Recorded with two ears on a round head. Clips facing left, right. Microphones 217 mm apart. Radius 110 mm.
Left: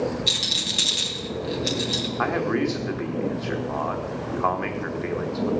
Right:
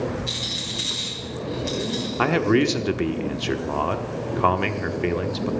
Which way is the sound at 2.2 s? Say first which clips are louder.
Right 5 dB; 40° right (ahead or behind).